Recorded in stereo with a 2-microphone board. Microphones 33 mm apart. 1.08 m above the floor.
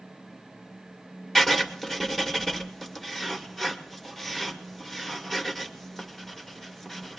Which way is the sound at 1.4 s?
10° left (ahead or behind).